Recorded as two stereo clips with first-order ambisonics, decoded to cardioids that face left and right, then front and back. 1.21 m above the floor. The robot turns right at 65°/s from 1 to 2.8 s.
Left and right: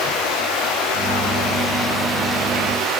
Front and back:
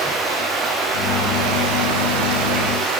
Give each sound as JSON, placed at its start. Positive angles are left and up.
{"t": 0.0, "sound": "running water", "azimuth_deg": 105, "distance_m": 7.5}